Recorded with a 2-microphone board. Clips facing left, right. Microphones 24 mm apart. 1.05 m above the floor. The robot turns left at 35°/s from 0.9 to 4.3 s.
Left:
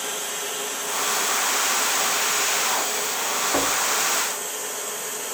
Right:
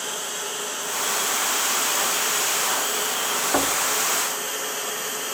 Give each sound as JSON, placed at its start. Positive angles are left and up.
{"t": 0.0, "sound": "running water", "azimuth_deg": -10, "distance_m": 4.0}
{"t": 3.5, "sound": "knocking", "side_deg": -20, "distance_m": 1.4}